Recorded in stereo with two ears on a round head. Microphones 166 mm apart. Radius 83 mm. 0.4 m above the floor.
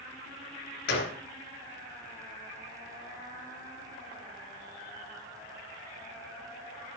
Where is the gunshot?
65° left (ahead or behind), 2.5 m.